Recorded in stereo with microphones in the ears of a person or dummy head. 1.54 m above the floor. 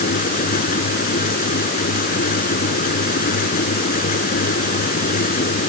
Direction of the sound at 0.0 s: 55° left (ahead or behind).